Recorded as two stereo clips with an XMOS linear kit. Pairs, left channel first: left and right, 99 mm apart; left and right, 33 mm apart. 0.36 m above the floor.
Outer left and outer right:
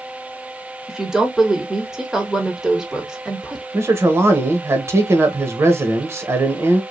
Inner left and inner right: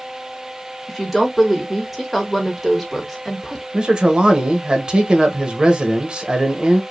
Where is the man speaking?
25° right (ahead or behind), 1.1 m.